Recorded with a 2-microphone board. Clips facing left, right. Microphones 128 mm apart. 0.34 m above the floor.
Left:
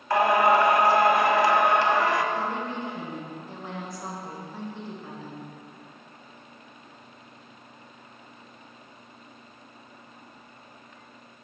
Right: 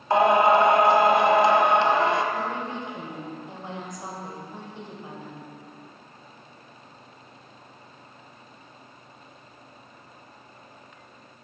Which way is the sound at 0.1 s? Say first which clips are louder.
Right 2 dB; 25° right (ahead or behind).